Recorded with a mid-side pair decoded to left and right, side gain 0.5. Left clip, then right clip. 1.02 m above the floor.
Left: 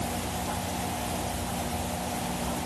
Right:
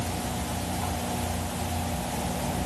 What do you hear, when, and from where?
Only background noise.